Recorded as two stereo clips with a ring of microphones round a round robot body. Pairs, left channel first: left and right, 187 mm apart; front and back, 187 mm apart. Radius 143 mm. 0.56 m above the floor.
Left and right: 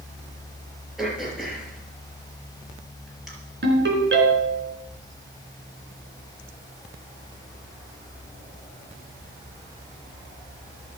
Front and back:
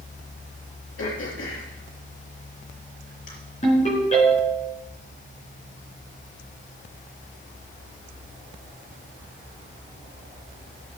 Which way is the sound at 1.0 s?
Straight ahead.